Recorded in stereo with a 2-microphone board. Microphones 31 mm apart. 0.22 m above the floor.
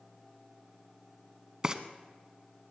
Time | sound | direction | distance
1.6 | frying | 25° right (ahead or behind) | 0.8 m